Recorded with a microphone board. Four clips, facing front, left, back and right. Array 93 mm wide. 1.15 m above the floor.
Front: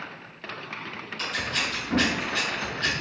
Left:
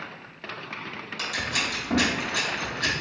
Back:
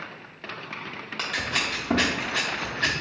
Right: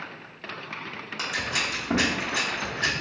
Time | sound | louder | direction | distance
1.2 | scissors | even, back 1 dB | 155° right | 0.7 m